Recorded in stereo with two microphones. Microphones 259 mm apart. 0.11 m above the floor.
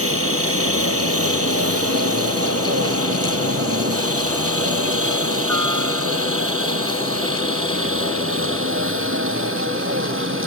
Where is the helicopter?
60° right (ahead or behind); by 10.5 s 50° right (ahead or behind).